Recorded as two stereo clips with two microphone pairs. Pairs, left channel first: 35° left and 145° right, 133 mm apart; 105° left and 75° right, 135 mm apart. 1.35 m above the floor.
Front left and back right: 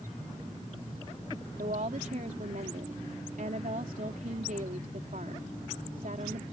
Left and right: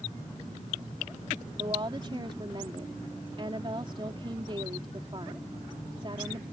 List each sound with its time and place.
1.6 s a woman speaking: 125° right